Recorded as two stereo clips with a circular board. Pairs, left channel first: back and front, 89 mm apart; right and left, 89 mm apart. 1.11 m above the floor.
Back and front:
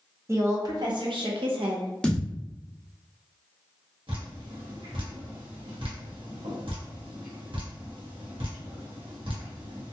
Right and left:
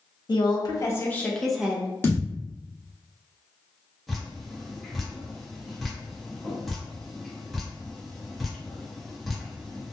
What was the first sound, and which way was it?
A woman speaking, 55° right.